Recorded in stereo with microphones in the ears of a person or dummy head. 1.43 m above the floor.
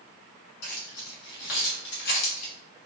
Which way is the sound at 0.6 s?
60° left (ahead or behind).